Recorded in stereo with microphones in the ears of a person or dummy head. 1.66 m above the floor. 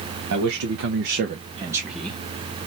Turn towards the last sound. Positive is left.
turn(degrees=10)  # may be behind; listen again after turning